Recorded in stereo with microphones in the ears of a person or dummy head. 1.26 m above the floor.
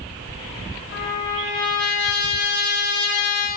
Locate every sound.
0.9 s a trumpet: 65° left (ahead or behind), 2.0 m